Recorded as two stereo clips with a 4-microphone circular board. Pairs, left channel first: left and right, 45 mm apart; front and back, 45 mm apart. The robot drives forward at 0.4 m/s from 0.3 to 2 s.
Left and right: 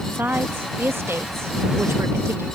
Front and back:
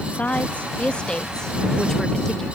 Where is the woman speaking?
55° right; by 2.5 s 80° right.